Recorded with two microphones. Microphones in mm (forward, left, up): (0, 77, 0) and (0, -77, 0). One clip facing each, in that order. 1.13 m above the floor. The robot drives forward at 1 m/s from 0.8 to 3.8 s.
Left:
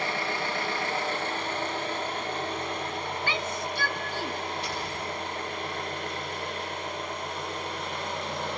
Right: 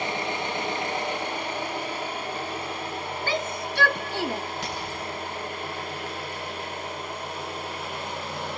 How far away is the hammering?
About 9 m.